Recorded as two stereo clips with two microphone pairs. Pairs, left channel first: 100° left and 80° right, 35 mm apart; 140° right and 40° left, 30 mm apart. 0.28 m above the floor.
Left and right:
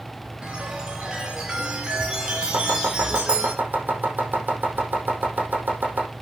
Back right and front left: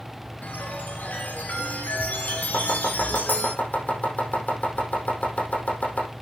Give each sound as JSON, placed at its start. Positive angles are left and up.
{"t": 0.4, "sound": "a chime", "azimuth_deg": -145, "distance_m": 3.0}
{"t": 2.5, "sound": "chopping", "azimuth_deg": -115, "distance_m": 5.0}